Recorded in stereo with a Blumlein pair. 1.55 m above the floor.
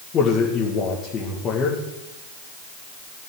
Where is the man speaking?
25° left, 2 m.